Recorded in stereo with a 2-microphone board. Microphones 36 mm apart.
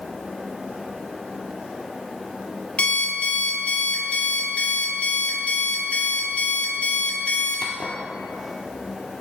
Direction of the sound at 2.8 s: 35° left (ahead or behind).